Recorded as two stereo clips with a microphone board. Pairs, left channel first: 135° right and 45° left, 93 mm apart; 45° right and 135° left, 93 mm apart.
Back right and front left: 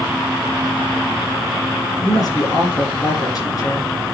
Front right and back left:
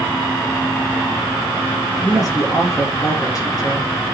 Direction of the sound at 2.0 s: 90° right.